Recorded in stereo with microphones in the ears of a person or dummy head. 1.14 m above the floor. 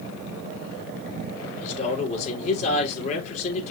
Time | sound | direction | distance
1.6 | a man speaking | 45° left (ahead or behind) | 3 m